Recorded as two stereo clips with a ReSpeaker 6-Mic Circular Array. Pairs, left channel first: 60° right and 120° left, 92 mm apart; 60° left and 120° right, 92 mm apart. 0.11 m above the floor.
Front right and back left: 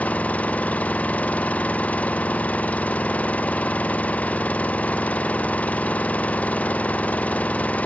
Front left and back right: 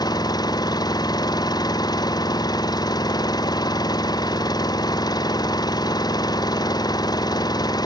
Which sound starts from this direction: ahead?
An engine running, at 0.0 s.